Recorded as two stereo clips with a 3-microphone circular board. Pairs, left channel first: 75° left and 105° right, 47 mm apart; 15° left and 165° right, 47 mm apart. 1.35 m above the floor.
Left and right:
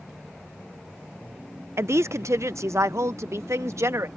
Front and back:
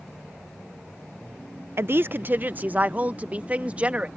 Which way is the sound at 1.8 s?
130° right.